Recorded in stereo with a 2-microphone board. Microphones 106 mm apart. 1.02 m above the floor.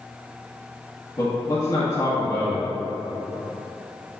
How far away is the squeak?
No squeak in this recording.